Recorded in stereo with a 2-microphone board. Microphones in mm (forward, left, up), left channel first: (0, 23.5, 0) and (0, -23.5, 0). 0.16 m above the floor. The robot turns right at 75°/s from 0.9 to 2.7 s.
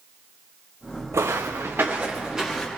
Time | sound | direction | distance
1.1 | footsteps | 85° right | 0.9 m